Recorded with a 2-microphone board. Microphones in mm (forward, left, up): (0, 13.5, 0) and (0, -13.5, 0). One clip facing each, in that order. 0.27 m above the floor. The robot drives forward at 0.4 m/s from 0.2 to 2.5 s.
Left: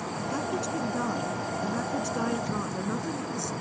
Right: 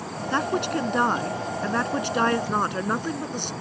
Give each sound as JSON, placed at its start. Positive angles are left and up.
{"t": 0.3, "sound": "a woman speaking", "side_deg": -65}